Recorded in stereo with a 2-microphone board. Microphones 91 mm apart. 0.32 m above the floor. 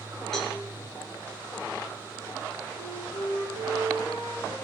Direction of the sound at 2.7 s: 80° left.